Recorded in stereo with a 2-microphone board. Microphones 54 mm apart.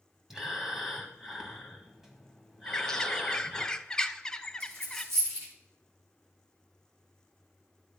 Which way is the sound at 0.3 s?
10° right (ahead or behind).